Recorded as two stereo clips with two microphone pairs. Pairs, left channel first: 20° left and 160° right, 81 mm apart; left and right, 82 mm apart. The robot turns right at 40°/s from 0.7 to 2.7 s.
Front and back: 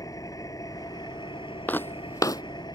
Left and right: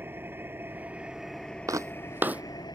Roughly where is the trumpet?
No trumpet in this recording.